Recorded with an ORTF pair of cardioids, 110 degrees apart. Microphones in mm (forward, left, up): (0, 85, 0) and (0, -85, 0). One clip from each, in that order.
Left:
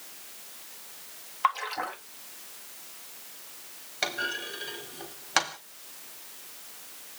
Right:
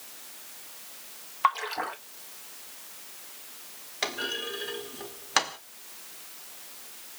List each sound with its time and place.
1.4 s a splash: 5° right, 0.9 m
4.0 s a clunk: straight ahead, 1.4 m